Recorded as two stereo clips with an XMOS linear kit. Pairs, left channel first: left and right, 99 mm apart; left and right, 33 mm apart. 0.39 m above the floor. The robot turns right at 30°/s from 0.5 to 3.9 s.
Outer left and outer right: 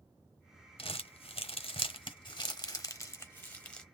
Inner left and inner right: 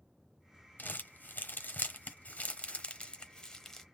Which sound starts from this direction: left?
Crumpling, at 0.8 s.